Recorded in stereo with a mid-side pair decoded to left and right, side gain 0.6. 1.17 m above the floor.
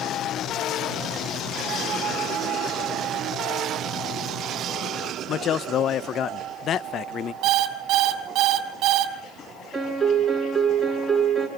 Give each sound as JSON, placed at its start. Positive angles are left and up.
{"t": 5.3, "sound": "a man speaking", "azimuth_deg": 45, "distance_m": 0.6}
{"t": 7.4, "sound": "an alarm clock", "azimuth_deg": -60, "distance_m": 2.5}
{"t": 9.7, "sound": "a piano", "azimuth_deg": -5, "distance_m": 6.5}